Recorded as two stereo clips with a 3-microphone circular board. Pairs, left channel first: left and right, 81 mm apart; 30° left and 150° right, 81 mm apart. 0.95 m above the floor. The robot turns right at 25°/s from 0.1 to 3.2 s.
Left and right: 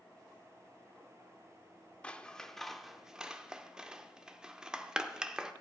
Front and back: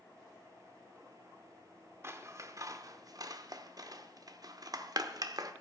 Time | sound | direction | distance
2.0 | scissors | 160° left | 0.7 m